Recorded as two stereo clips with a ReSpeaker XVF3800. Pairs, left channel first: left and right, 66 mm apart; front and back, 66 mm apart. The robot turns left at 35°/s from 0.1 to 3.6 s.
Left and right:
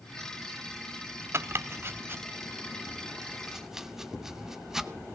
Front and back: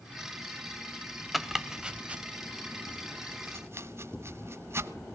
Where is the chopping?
90° right, 0.8 m; by 4.9 s 170° right, 0.8 m.